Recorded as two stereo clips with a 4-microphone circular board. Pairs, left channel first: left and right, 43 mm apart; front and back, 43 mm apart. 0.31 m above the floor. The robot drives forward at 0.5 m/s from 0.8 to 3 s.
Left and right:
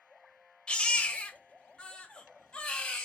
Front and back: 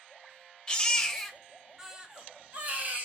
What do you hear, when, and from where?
0.7 s a baby crying: 50° left, 1.0 m; by 3.0 s 155° left, 1.2 m